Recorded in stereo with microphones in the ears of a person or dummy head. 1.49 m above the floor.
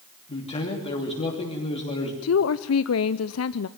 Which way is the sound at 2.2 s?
75° left (ahead or behind).